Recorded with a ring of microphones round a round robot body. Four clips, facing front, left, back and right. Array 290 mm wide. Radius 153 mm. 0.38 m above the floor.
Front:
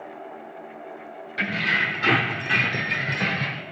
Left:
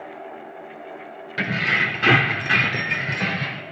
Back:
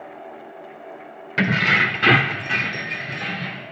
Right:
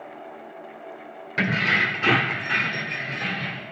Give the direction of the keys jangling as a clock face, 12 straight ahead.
6 o'clock.